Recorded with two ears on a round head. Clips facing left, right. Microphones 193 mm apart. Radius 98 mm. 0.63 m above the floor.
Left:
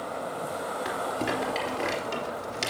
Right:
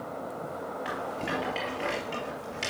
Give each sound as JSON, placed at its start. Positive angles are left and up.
{"t": 0.8, "sound": "a rattle", "side_deg": 55, "distance_m": 3.5}